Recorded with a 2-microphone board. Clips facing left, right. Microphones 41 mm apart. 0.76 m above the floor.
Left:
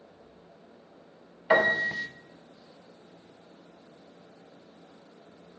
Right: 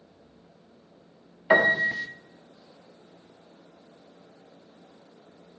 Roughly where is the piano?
Centre.